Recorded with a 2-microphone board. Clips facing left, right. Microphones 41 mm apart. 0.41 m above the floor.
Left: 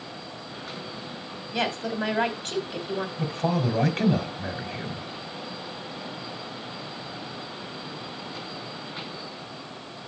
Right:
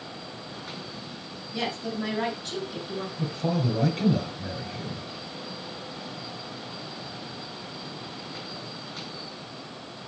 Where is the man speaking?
50° left (ahead or behind), 1.6 m.